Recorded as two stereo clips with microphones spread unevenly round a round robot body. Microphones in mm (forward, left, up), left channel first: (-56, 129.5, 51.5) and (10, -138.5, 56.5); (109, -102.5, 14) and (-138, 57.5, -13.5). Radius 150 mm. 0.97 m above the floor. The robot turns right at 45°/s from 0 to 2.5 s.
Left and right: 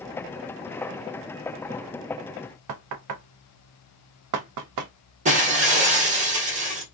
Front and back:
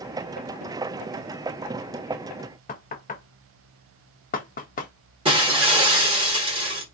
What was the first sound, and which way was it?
Knocking, 100° right.